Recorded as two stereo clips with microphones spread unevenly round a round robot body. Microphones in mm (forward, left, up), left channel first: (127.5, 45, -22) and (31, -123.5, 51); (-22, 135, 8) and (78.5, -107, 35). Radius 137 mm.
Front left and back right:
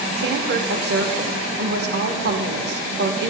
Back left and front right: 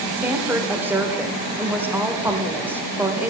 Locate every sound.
0.2 s a woman speaking: 155° right, 0.9 m